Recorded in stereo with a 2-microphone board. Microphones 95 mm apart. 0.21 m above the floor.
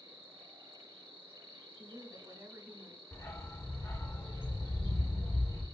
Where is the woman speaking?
35° right (ahead or behind), 1.2 m.